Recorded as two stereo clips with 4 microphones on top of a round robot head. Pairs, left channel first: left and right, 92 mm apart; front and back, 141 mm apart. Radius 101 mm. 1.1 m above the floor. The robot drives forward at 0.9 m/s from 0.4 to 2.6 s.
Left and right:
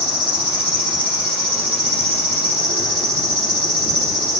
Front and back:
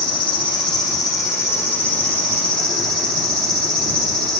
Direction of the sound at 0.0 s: 55° right.